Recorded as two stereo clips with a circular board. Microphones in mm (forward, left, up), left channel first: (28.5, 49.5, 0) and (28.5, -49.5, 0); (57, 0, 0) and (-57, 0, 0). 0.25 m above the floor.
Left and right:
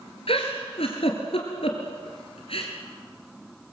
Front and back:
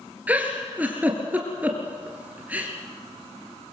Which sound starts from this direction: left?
A giggle, at 0.3 s.